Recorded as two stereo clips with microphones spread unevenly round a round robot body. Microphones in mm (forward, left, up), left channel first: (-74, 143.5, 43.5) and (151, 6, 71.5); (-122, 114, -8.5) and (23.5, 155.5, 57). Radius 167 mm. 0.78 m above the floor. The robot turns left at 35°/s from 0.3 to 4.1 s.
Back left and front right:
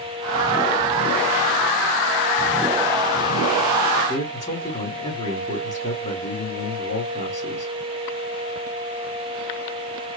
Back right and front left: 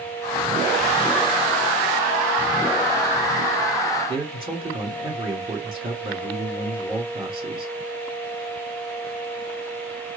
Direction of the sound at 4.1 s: 85° left.